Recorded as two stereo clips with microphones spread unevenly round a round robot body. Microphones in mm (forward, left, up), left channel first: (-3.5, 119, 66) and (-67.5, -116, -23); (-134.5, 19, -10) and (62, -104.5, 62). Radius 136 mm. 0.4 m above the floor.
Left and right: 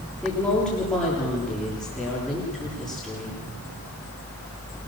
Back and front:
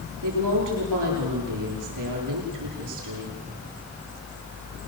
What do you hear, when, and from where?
0.2 s a woman speaking: 15° right, 9.5 m